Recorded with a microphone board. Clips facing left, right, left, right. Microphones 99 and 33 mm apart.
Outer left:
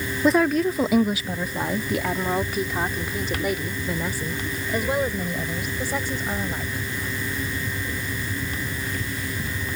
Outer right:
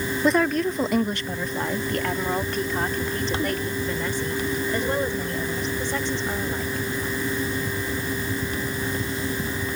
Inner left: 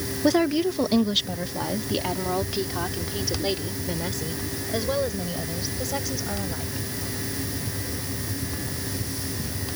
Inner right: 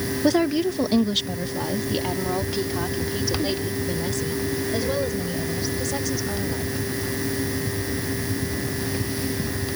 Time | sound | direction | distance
0.2 | a woman speaking | centre (ahead or behind) | ?